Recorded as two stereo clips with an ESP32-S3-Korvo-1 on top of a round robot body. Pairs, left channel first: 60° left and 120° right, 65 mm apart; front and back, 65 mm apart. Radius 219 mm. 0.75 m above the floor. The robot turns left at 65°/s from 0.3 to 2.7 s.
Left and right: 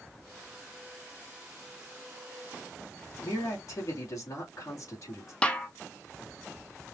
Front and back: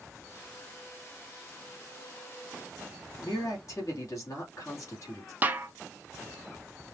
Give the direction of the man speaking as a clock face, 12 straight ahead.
11 o'clock.